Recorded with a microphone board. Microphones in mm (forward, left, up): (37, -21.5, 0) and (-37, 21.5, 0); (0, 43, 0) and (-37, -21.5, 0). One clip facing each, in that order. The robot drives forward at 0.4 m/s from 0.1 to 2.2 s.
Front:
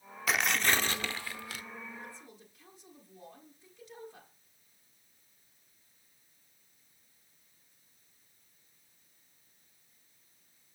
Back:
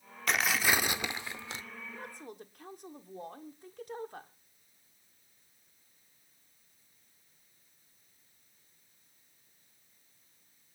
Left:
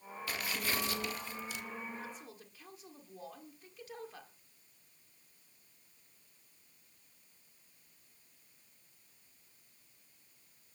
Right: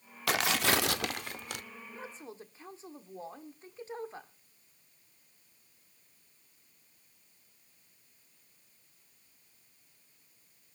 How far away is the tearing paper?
About 0.6 m.